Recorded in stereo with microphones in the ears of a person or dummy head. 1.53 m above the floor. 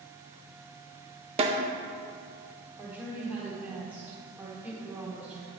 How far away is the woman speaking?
About 1.3 m.